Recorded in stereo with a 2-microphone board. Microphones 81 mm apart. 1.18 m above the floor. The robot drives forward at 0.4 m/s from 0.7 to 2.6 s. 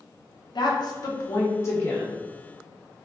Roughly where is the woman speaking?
Left.